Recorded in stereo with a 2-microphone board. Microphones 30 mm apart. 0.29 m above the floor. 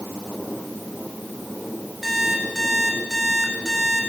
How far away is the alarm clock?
About 7.5 m.